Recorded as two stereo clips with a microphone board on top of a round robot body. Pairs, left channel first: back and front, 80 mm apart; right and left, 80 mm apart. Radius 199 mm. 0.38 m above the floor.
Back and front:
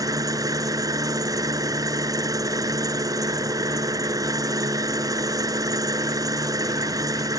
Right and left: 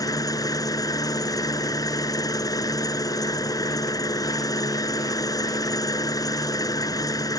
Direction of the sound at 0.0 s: 45° right.